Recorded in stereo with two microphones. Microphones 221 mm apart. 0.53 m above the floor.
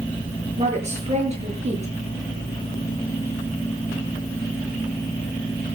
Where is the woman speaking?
30° right (ahead or behind), 7.5 m.